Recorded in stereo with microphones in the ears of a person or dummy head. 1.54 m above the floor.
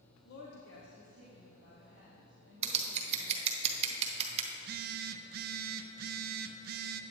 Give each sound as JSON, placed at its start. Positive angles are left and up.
{"t": 0.2, "sound": "a woman speaking", "side_deg": 60, "distance_m": 0.8}
{"t": 2.6, "sound": "scissors", "side_deg": -35, "distance_m": 0.8}
{"t": 4.5, "sound": "a phone buzzing", "side_deg": -55, "distance_m": 0.5}